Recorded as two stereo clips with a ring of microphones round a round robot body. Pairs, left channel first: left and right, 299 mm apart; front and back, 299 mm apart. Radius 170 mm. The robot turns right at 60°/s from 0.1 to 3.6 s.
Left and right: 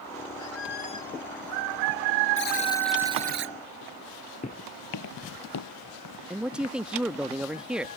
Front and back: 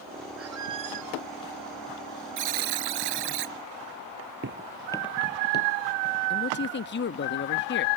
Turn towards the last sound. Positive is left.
turn(degrees=-5)